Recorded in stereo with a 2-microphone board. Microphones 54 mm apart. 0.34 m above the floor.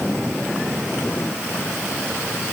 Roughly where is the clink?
No clink in this recording.